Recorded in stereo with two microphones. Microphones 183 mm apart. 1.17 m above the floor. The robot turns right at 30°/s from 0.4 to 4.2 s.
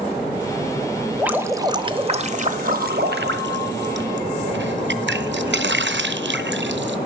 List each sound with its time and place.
1.2 s dripping: 175° right, 0.7 m; by 7.0 s 85° right, 0.7 m